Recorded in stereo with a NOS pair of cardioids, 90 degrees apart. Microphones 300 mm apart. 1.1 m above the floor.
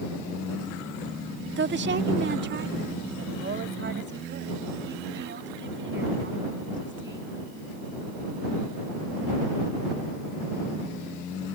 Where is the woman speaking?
35° right; by 7.4 s 40° right.